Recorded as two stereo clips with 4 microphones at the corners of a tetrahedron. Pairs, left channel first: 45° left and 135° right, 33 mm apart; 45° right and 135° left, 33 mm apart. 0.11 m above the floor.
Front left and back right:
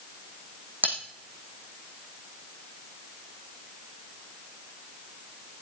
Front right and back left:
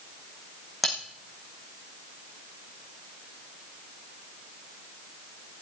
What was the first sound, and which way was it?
Cutlery clinking, 130° right.